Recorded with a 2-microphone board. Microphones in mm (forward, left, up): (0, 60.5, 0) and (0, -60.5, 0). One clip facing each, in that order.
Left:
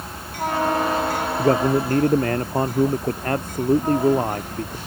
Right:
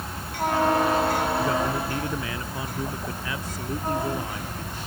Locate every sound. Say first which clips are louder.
1.4 s a man speaking: left 7 dB; 50° left (ahead or behind)